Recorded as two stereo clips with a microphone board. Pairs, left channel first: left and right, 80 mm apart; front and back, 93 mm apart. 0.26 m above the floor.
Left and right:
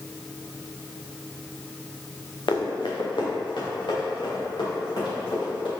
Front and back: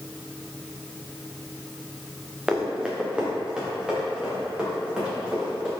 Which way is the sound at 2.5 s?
100° left.